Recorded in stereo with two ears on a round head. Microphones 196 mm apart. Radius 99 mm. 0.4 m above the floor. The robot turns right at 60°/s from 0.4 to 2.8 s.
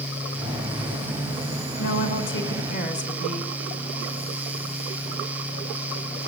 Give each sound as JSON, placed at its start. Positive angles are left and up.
{"t": 1.8, "sound": "a woman speaking", "azimuth_deg": 80, "distance_m": 4.5}